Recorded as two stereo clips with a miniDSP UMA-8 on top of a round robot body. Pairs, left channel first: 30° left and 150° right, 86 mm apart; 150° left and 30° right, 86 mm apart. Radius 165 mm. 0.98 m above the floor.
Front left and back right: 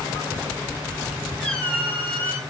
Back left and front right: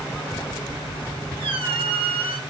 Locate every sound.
1.4 s a squeak: 50° right, 1.7 m